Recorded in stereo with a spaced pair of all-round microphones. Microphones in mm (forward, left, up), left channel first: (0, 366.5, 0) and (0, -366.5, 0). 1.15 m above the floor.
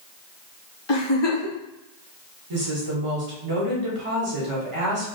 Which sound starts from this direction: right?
A woman speaking, at 2.5 s.